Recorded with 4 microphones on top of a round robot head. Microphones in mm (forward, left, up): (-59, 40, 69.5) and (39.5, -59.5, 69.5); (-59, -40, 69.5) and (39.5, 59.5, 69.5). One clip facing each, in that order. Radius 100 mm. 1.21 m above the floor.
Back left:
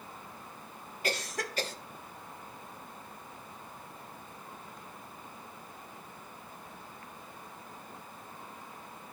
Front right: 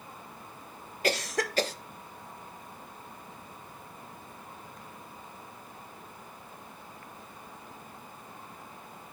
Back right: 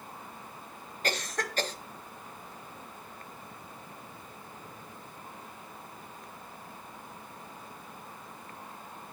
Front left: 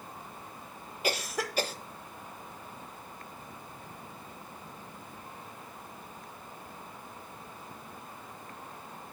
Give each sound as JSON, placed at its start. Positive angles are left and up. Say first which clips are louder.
{"t": 1.0, "sound": "a cough", "louder": "front right 6 dB, front left 1 dB", "azimuth_deg": -35, "distance_m": 0.6}